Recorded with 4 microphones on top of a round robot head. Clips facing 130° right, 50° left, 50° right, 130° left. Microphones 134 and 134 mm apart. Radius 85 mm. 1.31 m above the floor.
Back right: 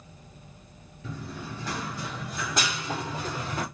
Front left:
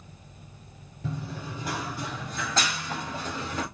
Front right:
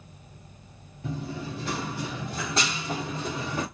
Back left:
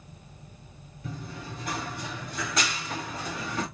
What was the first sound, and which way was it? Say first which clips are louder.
Running footsteps: front left 2 dB, front right 6 dB; straight ahead.